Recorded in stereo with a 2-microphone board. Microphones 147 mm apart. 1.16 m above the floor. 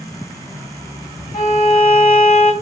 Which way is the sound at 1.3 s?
70° left (ahead or behind).